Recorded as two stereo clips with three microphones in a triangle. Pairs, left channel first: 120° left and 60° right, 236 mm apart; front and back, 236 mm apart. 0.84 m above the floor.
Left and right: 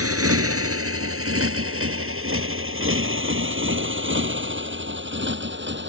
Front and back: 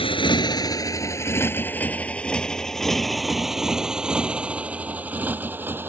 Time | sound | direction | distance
0.0 | a motorcycle | 70° right | ?